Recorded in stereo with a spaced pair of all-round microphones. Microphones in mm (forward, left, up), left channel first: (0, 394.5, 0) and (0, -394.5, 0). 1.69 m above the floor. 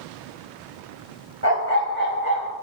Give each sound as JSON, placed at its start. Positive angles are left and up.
{"t": 1.4, "sound": "a dog barking", "side_deg": -55, "distance_m": 4.0}